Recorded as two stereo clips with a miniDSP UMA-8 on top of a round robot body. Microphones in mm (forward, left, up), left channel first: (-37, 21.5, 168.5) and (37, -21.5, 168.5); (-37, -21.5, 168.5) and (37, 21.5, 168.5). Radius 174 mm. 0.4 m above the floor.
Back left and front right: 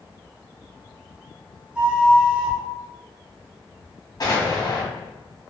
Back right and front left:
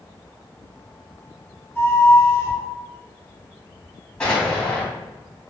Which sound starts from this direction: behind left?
An explosion, at 4.2 s.